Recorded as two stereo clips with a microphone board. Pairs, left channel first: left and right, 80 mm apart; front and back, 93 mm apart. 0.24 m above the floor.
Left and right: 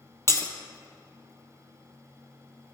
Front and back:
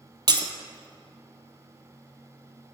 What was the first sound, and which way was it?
Breaking glass, 145° left.